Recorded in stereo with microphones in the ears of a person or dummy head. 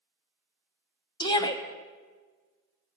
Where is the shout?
20° left (ahead or behind), 0.9 m.